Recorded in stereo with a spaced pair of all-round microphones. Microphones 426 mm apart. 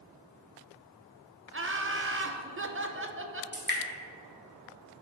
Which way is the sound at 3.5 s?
25° right (ahead or behind).